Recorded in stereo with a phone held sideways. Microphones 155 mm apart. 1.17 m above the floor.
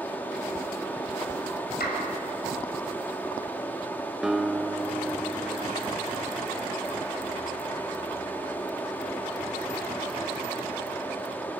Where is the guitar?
5° right (ahead or behind), 0.9 m.